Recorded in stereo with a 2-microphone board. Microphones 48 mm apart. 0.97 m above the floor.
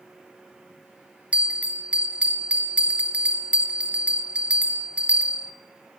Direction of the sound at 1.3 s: 25° right (ahead or behind).